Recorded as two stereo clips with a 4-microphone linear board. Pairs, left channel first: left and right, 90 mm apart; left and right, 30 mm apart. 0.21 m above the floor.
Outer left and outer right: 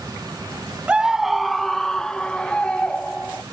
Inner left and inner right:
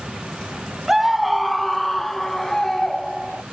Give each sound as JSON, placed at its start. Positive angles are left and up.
{"t": 0.9, "sound": "a scream", "side_deg": -10}